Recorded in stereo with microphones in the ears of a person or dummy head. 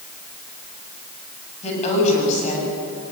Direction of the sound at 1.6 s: 35° left (ahead or behind).